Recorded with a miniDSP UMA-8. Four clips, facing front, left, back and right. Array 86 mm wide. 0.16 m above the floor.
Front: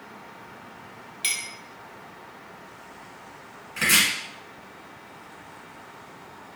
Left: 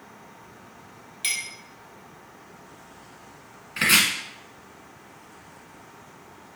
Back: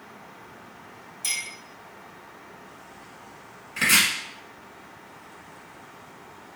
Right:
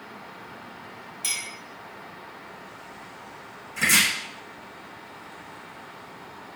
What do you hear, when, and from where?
1.2 s a clink: 35° left, 1.2 m
3.8 s chopping: 95° left, 1.2 m